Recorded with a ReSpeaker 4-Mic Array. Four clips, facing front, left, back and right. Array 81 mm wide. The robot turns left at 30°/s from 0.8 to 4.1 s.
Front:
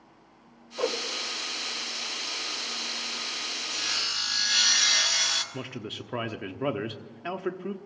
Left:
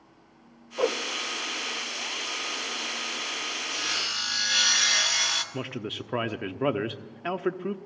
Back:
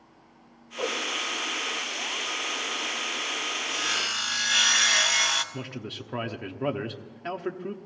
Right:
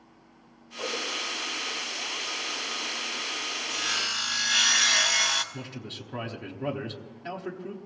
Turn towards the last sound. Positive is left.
turn(degrees=85)